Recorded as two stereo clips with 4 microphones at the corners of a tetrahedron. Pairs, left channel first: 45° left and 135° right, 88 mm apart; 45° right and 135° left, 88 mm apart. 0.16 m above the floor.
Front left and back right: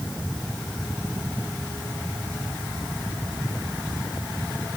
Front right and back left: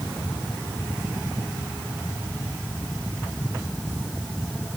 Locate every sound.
Only background noise.